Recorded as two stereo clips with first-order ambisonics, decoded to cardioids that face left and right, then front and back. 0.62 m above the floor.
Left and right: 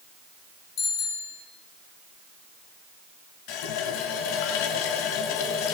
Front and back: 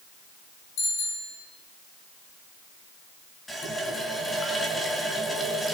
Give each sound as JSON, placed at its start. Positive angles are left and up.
{"t": 0.8, "sound": "a bicycle bell", "azimuth_deg": 45, "distance_m": 8.5}
{"t": 3.5, "sound": "a running tap", "azimuth_deg": 85, "distance_m": 3.5}